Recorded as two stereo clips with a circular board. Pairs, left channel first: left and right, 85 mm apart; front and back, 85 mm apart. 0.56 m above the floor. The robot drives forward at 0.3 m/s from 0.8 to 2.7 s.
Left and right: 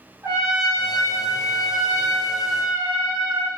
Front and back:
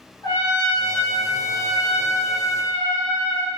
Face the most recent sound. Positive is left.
turn(degrees=-50)